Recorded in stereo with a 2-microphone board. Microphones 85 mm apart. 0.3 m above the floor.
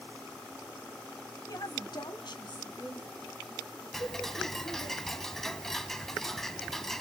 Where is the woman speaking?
50° left (ahead or behind), 1.6 m; by 4.9 s 60° left (ahead or behind), 5.5 m.